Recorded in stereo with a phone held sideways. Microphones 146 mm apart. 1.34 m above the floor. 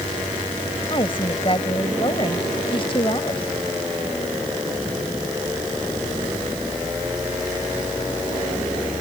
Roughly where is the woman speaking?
Left.